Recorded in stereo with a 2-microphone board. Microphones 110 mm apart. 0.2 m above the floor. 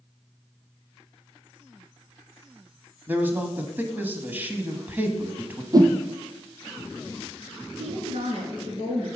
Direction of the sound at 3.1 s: 15° right (ahead or behind).